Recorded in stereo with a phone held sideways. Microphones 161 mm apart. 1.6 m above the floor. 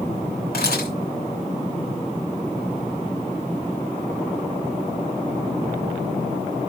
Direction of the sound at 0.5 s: 80° left.